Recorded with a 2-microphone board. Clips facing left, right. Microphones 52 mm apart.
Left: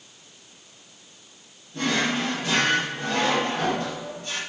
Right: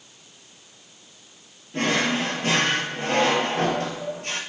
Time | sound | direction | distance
1.7 | a drawer | 60° right (ahead or behind) | 2.5 m